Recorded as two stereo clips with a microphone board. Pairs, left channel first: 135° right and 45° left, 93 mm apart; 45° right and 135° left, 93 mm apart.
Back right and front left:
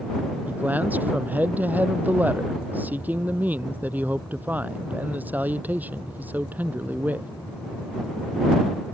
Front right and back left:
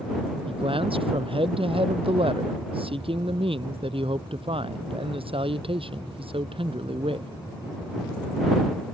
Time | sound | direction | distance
0.5 | a man speaking | 115° left | ?